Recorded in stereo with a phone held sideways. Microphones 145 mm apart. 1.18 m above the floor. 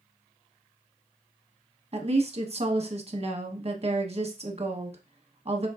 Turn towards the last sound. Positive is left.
turn(degrees=-45)  # may be behind; listen again after turning